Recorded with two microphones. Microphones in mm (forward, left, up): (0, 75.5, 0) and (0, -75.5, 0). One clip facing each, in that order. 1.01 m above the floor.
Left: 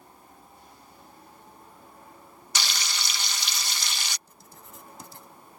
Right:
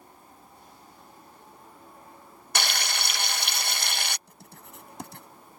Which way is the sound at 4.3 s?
65° right (ahead or behind).